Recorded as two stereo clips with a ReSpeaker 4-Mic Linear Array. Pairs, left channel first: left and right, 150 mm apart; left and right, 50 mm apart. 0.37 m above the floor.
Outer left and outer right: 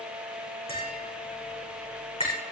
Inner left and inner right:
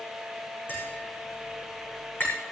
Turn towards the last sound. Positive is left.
turn(degrees=40)  # may be behind; listen again after turning